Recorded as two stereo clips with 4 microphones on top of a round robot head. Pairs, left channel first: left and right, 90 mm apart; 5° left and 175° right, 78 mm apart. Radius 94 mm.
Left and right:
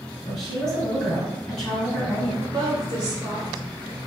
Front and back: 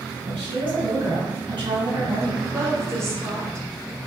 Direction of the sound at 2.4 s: 130° right.